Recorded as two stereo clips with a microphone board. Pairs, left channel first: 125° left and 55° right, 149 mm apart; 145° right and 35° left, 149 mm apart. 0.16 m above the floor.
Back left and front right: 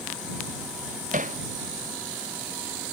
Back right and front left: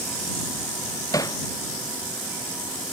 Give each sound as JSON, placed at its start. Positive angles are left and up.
{"t": 1.1, "sound": "hammering", "azimuth_deg": -80}